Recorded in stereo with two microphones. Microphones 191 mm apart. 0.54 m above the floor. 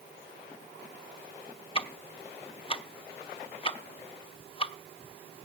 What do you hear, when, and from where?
1.8 s ticking: 30° left (ahead or behind), 1.0 m